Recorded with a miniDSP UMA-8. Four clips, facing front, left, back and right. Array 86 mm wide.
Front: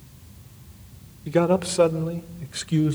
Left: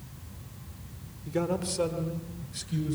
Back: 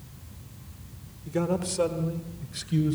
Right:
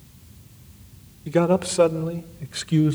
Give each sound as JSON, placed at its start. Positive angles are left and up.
{"t": 1.3, "sound": "a man speaking", "azimuth_deg": -50, "distance_m": 1.1}